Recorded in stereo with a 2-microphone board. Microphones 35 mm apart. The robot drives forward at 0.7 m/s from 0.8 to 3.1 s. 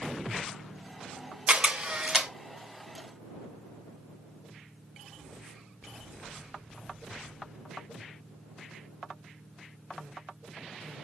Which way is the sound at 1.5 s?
35° right (ahead or behind).